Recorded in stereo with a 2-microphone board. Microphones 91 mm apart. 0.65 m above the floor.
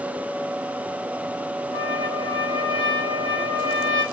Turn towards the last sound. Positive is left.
turn(degrees=60)  # may be behind; listen again after turning